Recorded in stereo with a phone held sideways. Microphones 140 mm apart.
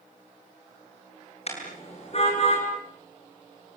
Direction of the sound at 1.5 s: 45° left (ahead or behind).